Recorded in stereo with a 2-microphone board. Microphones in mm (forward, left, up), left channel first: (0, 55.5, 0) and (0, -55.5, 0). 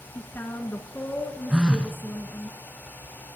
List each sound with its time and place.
0.1 s a woman speaking: 20° left (ahead or behind), 1.1 m
1.5 s a phone buzzing: 10° right (ahead or behind), 0.7 m